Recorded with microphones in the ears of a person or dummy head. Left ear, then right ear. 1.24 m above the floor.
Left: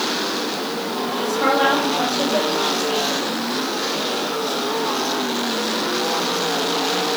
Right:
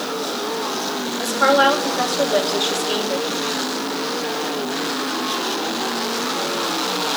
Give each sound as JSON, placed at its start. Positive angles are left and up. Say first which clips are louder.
{"t": 1.2, "sound": "a woman speaking", "louder": "right 3 dB", "side_deg": -45, "distance_m": 3.0}